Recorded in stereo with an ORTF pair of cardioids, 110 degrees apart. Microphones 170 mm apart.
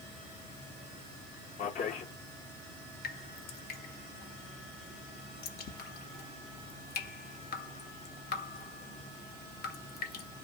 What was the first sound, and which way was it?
A man speaking, 50° left.